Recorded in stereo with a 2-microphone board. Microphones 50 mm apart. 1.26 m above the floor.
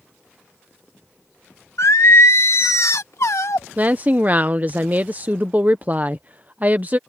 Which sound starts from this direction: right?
A woman speaking, at 3.8 s.